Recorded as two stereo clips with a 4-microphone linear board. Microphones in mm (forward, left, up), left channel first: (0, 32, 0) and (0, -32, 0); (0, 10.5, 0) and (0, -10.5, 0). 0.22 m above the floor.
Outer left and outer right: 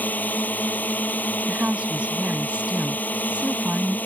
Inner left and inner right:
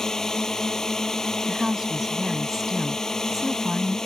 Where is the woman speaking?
15° right (ahead or behind).